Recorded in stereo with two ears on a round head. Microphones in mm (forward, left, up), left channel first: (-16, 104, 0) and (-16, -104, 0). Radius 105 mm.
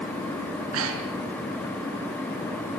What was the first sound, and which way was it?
Breathing, 65° right (ahead or behind).